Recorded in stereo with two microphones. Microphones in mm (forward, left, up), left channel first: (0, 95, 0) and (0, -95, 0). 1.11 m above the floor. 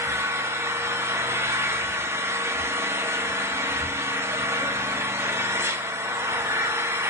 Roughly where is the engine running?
Centre.